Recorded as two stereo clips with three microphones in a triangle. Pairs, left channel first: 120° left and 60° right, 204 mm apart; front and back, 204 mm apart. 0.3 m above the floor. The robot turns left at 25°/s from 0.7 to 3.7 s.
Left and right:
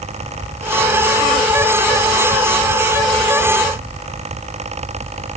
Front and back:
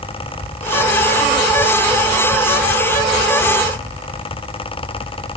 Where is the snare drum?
I don't hear a snare drum.